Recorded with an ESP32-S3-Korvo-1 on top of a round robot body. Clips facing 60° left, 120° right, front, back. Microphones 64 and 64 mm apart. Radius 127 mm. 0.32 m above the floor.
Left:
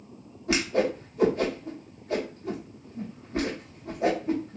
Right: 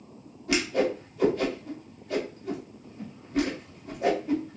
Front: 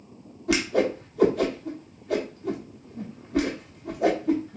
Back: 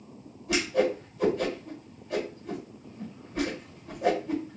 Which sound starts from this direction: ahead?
A whoosh, at 0.5 s.